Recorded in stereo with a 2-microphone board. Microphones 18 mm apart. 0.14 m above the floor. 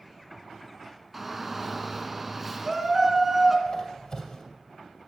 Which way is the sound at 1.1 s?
15° right (ahead or behind).